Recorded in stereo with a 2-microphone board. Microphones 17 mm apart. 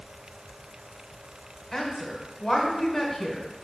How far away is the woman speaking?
About 1.3 m.